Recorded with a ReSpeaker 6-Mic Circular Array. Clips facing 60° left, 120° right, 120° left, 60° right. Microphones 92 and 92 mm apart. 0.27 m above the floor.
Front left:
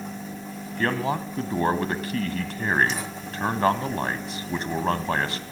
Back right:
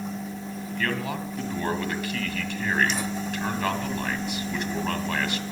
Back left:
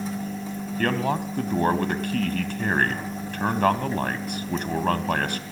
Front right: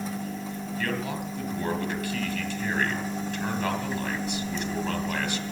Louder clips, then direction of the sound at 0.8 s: Front left 5 dB, back left 7 dB; 105° left.